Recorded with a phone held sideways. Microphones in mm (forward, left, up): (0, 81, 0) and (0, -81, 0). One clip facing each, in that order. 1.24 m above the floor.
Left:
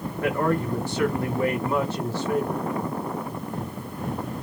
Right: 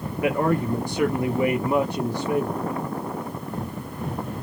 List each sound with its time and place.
0.2 s a man speaking: 15° right (ahead or behind), 0.5 m